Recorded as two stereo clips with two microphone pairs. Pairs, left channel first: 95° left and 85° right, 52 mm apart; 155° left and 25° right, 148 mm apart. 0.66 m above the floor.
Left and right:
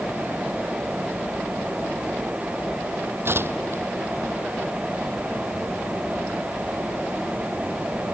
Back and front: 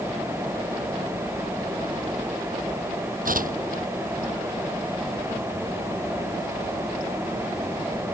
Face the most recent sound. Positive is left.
turn(degrees=-45)